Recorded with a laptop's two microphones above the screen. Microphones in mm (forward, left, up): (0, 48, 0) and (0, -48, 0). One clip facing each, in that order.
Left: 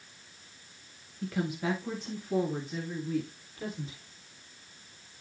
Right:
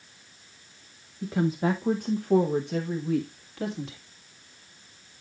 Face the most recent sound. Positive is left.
turn(degrees=-80)